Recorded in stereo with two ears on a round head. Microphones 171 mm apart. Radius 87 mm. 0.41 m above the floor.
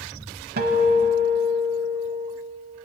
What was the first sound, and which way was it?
A guitar, 55° right (ahead or behind).